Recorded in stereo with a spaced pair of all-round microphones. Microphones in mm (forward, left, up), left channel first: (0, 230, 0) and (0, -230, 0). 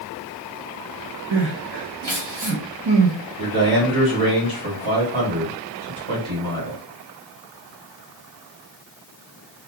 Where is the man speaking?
80° right, 1.5 m.